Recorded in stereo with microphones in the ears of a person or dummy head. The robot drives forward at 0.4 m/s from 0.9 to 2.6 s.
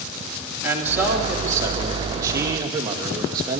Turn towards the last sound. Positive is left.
turn(degrees=-20)  # may be behind; listen again after turning